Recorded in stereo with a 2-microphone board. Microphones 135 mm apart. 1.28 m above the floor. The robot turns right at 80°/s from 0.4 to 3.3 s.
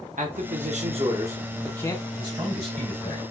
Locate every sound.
0.2 s a man speaking: 95° right, 0.8 m; by 2.0 s 40° left, 0.8 m
2.2 s a man speaking: 30° right, 3 m; by 3.2 s 50° left, 3 m